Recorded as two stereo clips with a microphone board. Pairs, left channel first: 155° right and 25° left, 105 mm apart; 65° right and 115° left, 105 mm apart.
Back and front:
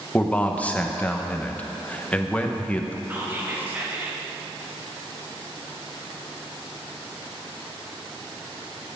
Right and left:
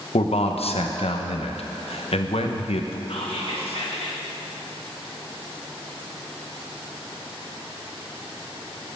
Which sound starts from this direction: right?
A man speaking, at 0.1 s.